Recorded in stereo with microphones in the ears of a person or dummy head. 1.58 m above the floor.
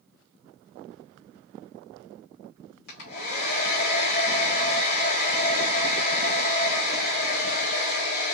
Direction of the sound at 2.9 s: 55° left (ahead or behind).